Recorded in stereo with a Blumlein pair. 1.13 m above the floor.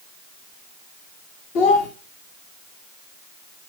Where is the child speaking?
45° left, 1.3 m.